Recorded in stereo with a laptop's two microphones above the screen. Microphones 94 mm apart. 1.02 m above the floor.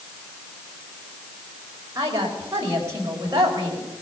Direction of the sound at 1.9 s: 35° right (ahead or behind).